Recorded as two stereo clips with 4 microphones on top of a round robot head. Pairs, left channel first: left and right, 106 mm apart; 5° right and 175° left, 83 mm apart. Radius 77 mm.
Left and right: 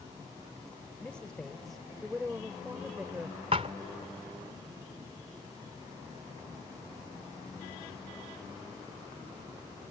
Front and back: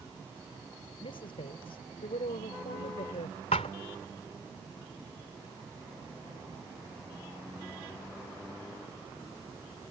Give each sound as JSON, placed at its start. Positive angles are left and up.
{"t": 1.0, "sound": "a woman speaking", "azimuth_deg": 10}
{"t": 3.5, "sound": "a thud", "azimuth_deg": -40}